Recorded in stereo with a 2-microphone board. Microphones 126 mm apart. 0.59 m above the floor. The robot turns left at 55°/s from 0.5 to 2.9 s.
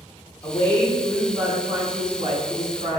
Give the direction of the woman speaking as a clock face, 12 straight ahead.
11 o'clock.